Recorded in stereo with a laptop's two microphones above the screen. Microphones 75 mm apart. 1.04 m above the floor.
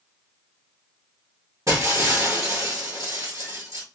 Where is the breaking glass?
50° right (ahead or behind), 1.6 m.